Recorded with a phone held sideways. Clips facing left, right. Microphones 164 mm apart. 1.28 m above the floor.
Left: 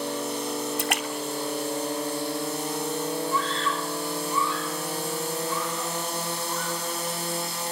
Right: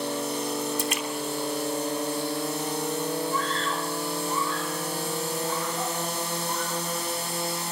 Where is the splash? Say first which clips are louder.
Even; 70° left (ahead or behind), 3 m.